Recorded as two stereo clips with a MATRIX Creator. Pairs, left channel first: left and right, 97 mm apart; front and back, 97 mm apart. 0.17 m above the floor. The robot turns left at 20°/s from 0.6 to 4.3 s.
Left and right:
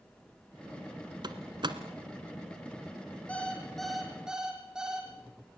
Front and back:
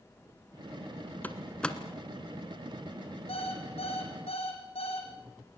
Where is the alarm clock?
15° left, 4.5 m; by 5.1 s 5° right, 4.5 m.